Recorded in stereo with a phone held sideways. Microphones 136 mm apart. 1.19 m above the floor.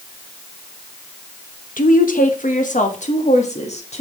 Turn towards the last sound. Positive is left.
turn(degrees=55)  # may be behind; listen again after turning